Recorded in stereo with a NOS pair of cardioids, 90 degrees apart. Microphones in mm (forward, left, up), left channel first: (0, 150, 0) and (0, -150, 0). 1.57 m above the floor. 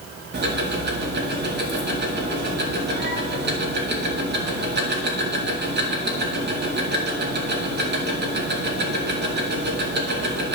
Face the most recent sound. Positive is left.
turn(degrees=-35)